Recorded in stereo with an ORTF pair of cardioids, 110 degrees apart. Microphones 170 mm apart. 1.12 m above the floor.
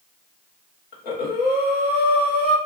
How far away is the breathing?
About 1.3 m.